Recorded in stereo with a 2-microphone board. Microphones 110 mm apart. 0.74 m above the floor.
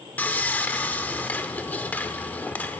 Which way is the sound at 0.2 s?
15° left (ahead or behind).